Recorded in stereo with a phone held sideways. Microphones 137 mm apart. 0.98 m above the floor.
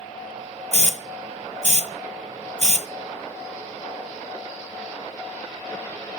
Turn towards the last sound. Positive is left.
turn(degrees=-60)  # may be behind; listen again after turning